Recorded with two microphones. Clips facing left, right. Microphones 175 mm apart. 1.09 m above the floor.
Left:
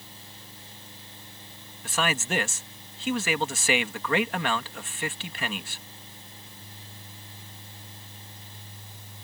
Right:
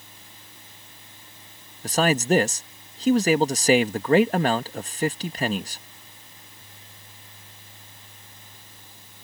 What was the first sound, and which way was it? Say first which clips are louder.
A man speaking: right 8 dB; 40° right (ahead or behind).